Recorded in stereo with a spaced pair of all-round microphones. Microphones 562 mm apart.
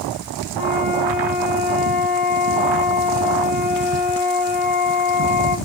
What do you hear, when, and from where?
0.6 s a flute: 60° left (ahead or behind), 1.3 m